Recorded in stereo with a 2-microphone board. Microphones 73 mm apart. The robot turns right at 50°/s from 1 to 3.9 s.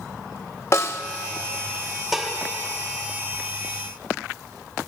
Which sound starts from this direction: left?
A snare drum, at 0.7 s.